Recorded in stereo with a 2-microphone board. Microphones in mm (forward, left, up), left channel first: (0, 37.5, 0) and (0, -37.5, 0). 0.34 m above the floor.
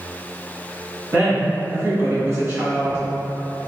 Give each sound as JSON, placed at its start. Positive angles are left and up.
{"t": 1.1, "sound": "a woman speaking", "side_deg": -45, "distance_m": 1.7}